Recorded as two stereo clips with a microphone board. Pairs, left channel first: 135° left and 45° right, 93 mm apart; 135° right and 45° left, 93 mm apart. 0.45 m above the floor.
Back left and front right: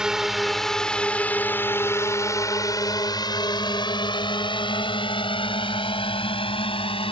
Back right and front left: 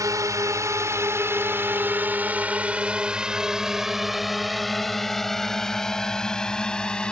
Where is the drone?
35° left; by 7.1 s 145° left.